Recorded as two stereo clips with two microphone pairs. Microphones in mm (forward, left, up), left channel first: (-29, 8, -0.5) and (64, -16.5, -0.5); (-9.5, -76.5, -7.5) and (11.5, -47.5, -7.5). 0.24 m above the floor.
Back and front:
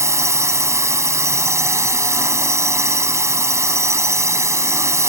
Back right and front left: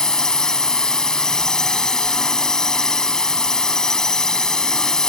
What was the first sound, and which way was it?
A drone, 60° right.